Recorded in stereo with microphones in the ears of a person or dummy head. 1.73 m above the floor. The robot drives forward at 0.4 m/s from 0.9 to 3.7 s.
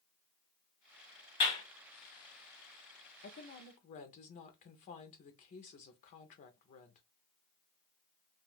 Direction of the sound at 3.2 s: 45° left (ahead or behind).